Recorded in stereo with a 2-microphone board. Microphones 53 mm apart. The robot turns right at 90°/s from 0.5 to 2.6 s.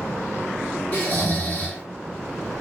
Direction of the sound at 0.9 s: 65° left.